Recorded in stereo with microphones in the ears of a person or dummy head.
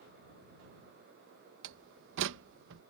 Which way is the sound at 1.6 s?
65° right (ahead or behind).